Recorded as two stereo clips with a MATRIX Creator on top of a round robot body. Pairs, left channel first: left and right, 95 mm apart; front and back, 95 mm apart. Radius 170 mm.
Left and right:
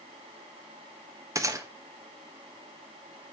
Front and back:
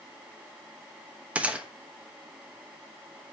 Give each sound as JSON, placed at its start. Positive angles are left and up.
{"t": 1.4, "sound": "a gunshot", "azimuth_deg": -110, "distance_m": 1.3}